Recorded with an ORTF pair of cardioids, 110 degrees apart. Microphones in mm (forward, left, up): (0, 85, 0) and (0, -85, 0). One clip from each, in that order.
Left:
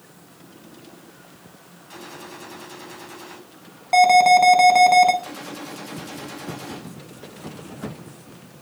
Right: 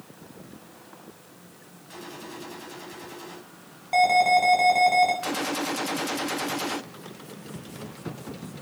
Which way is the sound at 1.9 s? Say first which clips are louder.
Left 2 dB; 15° left.